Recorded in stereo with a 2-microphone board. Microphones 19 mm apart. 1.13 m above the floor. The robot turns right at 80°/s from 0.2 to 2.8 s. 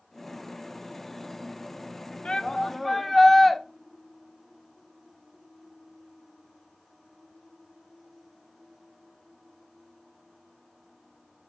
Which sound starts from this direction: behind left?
A shout, at 2.2 s.